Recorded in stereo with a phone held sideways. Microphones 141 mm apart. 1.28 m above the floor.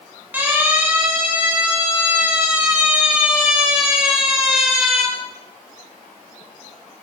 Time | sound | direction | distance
0.3 | a siren | 10° right (ahead or behind) | 9.5 m